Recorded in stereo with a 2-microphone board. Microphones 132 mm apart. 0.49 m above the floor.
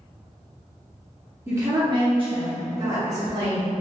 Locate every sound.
1.5 s a woman speaking: 20° right (ahead or behind), 0.8 m; by 3.8 s 65° right (ahead or behind), 1.9 m